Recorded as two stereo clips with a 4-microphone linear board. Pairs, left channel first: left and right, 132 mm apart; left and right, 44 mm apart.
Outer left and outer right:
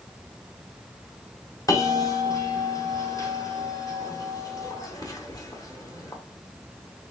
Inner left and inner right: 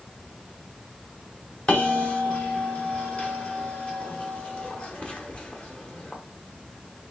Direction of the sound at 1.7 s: 30° left (ahead or behind).